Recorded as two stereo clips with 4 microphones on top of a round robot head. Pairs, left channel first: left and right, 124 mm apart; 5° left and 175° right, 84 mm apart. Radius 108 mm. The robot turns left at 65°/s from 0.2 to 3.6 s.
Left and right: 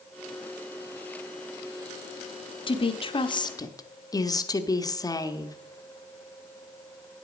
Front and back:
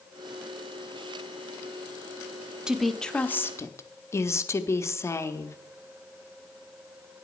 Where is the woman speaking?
105° left, 1.0 m; by 5.6 s 45° left, 1.0 m.